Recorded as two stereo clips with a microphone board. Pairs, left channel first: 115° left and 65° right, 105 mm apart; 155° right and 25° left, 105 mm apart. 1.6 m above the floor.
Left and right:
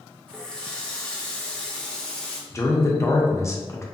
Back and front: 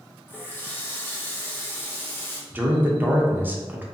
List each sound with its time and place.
0.3 s a running tap: straight behind, 0.5 m
2.5 s a man speaking: 80° left, 0.5 m